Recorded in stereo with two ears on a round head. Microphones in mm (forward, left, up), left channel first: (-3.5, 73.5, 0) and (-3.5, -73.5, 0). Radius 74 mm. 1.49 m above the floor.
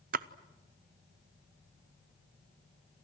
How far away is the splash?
About 0.7 m.